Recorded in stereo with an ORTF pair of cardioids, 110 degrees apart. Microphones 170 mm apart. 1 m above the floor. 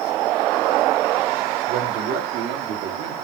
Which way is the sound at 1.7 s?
70° right.